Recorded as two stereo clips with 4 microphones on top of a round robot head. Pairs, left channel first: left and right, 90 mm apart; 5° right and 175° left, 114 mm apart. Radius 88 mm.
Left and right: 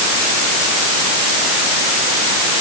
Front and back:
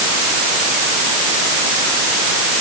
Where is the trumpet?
I don't hear a trumpet.